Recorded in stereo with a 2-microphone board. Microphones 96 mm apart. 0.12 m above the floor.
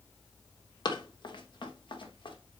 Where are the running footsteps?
50° left (ahead or behind), 2.5 m; by 2.4 s 60° left (ahead or behind), 3 m.